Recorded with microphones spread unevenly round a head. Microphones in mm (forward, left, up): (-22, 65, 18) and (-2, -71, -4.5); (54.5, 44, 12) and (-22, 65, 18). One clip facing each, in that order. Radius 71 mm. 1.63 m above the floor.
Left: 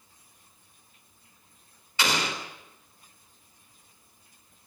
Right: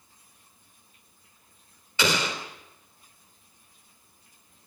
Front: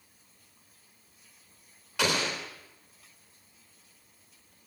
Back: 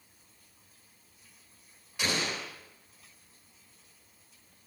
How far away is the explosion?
About 3.5 m.